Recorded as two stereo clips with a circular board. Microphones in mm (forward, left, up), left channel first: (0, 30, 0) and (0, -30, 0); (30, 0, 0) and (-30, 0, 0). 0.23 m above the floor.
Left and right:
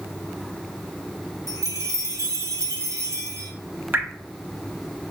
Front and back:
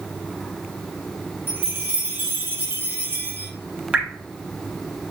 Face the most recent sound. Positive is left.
turn(degrees=-120)